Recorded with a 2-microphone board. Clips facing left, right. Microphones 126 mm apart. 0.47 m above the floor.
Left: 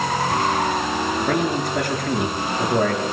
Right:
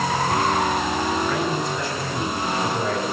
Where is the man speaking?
65° left (ahead or behind), 6.5 m; by 3.0 s 85° left, 6 m.